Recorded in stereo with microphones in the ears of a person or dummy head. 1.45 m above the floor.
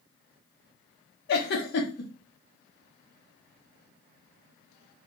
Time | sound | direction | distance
1.3 | a giggle | 55° left (ahead or behind) | 0.8 m